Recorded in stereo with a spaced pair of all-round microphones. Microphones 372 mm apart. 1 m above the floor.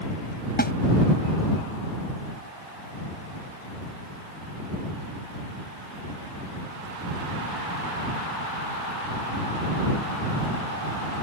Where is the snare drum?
25° left (ahead or behind).